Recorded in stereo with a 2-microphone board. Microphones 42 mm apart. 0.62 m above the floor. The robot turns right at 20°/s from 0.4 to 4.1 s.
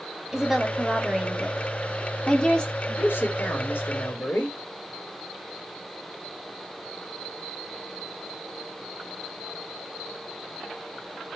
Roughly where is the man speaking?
Left.